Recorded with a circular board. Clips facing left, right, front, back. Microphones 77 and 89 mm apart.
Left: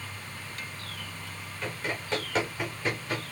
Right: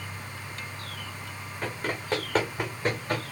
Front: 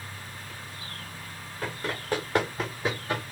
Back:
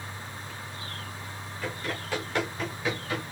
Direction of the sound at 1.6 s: 45° right.